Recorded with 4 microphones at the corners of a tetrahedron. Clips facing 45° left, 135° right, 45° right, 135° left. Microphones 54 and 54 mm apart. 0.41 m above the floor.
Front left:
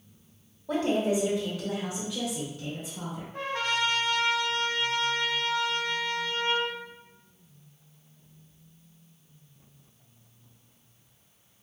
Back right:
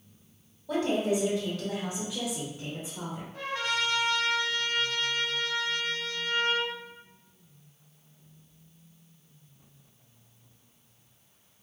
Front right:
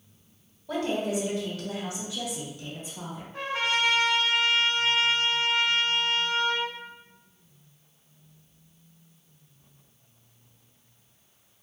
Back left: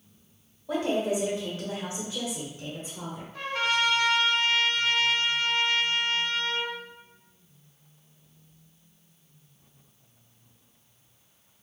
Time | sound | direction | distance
0.7 | a woman speaking | 75° left | 1.8 m
3.3 | a trumpet | 15° left | 1.4 m